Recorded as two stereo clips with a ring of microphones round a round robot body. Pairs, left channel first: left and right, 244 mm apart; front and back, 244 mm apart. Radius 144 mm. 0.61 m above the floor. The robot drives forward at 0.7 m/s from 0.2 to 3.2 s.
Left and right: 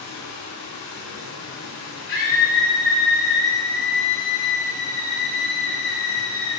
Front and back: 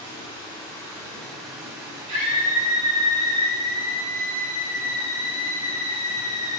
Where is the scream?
140° left, 4 m; by 6.6 s 150° left, 4.5 m.